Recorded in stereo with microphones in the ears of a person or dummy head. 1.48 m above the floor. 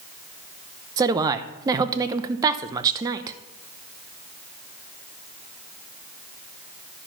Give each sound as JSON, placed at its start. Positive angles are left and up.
{"t": 1.0, "sound": "a woman speaking", "side_deg": -15, "distance_m": 0.7}